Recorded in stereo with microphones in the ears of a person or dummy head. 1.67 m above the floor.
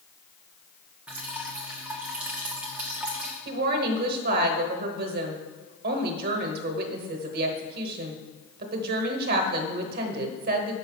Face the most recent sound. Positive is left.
turn(degrees=-55)  # may be behind; listen again after turning